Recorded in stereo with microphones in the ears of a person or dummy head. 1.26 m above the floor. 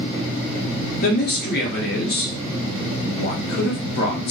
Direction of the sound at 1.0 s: 50° left (ahead or behind).